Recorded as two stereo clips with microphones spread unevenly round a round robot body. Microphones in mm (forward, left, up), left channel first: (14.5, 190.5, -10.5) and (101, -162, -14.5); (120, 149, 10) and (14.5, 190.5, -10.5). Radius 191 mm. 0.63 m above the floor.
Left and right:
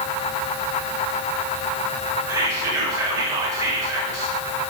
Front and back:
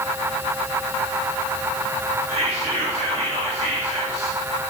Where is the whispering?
160° right, 2 m.